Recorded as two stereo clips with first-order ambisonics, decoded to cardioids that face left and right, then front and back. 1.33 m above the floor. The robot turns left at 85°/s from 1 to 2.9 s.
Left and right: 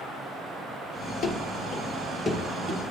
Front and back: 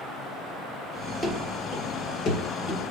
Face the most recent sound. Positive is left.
turn(degrees=-50)